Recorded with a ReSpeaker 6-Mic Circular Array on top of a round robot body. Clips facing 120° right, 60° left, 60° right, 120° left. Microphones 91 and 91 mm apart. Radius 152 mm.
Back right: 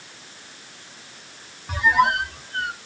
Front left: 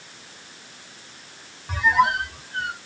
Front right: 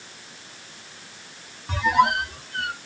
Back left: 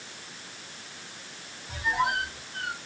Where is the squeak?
35° right, 0.5 m.